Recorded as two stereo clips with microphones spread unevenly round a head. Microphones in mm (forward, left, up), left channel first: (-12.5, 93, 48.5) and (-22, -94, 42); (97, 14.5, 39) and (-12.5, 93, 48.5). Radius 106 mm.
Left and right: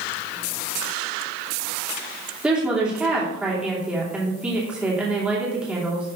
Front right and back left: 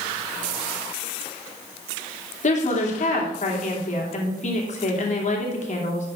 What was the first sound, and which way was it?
A woman speaking, 10° right.